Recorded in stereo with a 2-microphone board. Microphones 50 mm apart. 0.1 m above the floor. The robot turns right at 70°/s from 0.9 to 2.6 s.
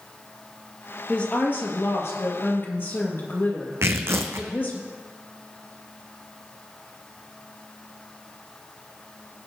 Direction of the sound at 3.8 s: 60° right (ahead or behind).